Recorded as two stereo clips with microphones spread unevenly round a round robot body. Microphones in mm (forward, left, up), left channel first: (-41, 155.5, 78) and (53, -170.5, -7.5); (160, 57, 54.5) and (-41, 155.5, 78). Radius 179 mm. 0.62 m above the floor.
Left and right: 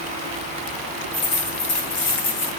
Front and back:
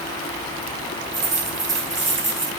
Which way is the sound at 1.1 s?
120° left.